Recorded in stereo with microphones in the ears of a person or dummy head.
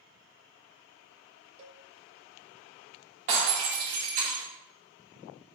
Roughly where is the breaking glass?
Right.